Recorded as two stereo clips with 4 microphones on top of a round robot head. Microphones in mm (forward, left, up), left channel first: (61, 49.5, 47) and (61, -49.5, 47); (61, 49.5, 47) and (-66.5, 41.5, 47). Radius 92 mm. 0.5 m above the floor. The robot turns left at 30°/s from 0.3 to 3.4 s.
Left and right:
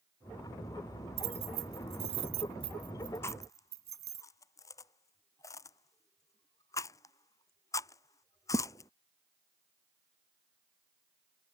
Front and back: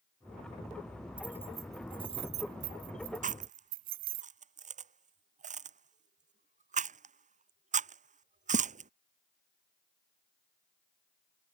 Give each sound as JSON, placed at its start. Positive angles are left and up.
{"t": 1.2, "sound": "keys jangling", "azimuth_deg": -95}
{"t": 3.2, "sound": "chewing", "azimuth_deg": 165}